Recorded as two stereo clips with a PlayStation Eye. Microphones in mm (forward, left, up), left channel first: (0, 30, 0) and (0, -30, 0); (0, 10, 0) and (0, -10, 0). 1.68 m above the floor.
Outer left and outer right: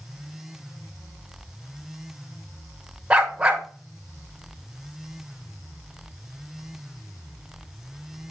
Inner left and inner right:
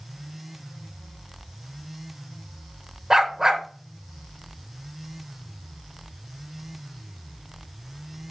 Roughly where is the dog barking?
Centre.